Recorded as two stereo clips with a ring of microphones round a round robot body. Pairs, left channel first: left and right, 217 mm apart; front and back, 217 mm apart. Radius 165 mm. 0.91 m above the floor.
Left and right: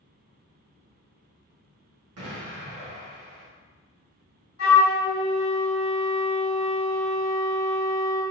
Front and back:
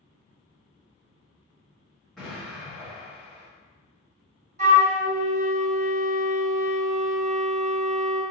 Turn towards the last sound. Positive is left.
turn(degrees=130)